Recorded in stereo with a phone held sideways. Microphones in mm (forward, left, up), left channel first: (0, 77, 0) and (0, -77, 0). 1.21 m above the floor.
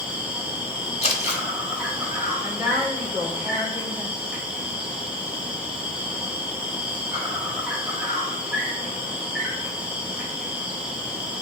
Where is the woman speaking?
10° right (ahead or behind), 1.9 m.